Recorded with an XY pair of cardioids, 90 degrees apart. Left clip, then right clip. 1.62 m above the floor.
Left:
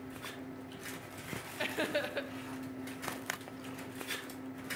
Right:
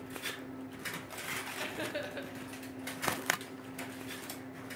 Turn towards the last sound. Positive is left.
turn(degrees=40)